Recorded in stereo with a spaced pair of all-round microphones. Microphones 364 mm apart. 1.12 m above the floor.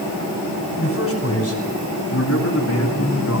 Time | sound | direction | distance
0.8 | a man speaking | 35° left (ahead or behind) | 10 m